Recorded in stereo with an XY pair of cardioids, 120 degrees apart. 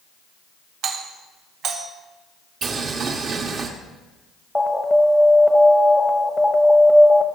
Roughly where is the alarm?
Ahead.